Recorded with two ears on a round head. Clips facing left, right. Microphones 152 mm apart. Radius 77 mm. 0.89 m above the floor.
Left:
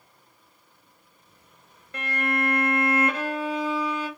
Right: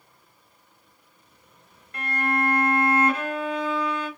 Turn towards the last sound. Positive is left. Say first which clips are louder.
# right 1 dB
turn(degrees=65)  # may be behind; listen again after turning